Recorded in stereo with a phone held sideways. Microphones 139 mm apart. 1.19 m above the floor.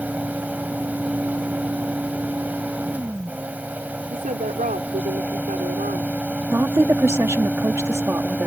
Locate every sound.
0.0 s a fan: 10° right (ahead or behind)
4.1 s a woman speaking: 80° right
6.5 s a woman speaking: 20° right (ahead or behind)